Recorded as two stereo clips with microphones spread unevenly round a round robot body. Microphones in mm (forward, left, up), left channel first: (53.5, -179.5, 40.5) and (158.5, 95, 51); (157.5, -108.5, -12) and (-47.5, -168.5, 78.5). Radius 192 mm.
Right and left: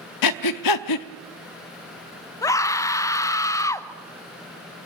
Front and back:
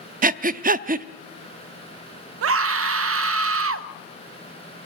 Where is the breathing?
135° right, 0.7 m.